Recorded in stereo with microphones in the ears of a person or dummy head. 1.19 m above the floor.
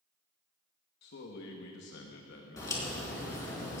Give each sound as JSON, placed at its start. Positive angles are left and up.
{"t": 1.0, "sound": "a man speaking", "side_deg": 55, "distance_m": 1.1}
{"t": 2.6, "sound": "a crack", "side_deg": 15, "distance_m": 3.5}